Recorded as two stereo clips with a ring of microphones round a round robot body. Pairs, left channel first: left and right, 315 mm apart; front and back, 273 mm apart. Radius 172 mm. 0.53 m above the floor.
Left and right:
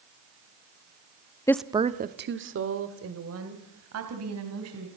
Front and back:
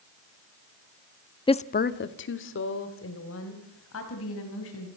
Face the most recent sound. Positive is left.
turn(degrees=-50)